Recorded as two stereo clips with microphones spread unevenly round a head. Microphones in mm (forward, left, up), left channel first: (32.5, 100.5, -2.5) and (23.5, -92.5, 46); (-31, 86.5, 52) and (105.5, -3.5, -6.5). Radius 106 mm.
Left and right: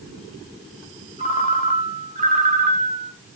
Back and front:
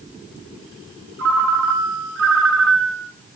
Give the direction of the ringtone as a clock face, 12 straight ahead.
1 o'clock.